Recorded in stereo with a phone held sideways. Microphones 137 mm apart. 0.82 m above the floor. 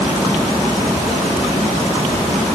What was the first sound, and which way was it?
Only background noise.